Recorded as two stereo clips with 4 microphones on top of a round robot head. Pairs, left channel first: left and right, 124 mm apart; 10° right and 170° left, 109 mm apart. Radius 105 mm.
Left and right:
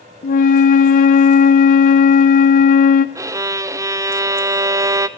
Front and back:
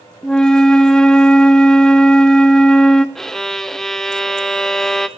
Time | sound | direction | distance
0.2 | a flute | 70° left | 0.5 m
3.1 | a violin | 90° right | 0.6 m